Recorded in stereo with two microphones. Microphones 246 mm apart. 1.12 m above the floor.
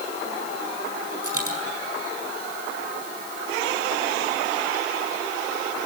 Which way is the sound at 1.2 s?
65° right (ahead or behind).